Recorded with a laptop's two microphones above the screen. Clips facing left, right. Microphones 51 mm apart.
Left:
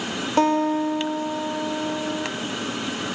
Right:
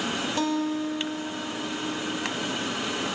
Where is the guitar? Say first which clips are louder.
Left 9 dB; 35° left (ahead or behind), 2 m.